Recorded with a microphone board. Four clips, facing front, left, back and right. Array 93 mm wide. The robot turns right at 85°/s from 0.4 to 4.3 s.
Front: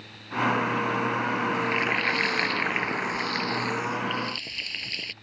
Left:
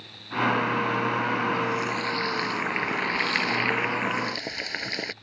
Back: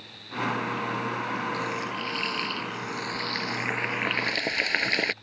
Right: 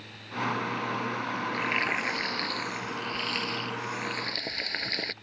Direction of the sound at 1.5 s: 65° right.